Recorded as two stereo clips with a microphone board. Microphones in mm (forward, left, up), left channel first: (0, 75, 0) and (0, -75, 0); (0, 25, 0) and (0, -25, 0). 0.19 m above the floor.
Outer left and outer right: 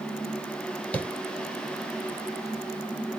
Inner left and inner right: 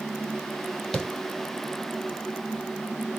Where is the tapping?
10° left (ahead or behind), 1.0 m.